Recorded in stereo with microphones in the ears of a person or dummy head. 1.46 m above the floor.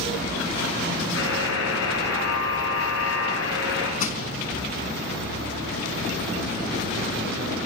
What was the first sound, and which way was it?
A buzzer, 80° left.